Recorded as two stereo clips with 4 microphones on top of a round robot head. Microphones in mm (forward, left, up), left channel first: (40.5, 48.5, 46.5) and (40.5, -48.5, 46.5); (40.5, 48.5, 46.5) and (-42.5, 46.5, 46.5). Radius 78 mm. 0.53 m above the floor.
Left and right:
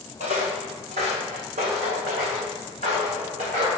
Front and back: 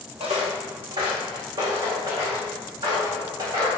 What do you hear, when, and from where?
0.2 s footsteps: 130° right, 1.2 m; by 3.7 s 125° right, 4.5 m